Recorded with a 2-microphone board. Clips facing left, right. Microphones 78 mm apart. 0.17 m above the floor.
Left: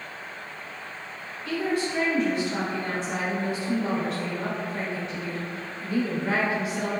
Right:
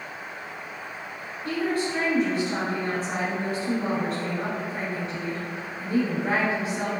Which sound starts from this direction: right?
A woman speaking, at 1.4 s.